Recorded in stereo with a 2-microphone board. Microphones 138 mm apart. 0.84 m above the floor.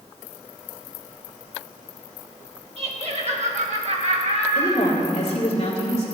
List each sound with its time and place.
2.8 s laughter: 50° right (ahead or behind), 1.7 m
4.5 s a woman speaking: 50° left (ahead or behind), 3 m